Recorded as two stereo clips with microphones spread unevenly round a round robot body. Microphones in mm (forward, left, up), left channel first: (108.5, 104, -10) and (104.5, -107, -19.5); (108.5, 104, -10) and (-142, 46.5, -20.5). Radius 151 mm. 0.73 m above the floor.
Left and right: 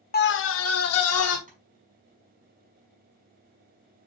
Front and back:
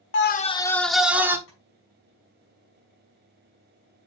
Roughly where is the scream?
Ahead left.